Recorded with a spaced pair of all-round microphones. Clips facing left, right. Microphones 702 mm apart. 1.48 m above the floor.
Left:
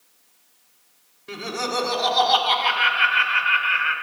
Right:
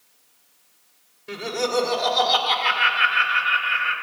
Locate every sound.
1.3 s laughter: 15° right (ahead or behind), 3.5 m